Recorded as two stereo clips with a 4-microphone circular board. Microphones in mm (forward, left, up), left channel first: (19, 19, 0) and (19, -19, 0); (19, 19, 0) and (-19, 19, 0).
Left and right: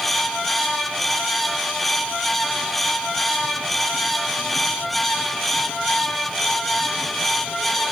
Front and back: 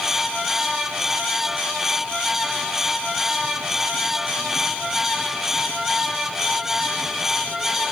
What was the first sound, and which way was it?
Only background noise.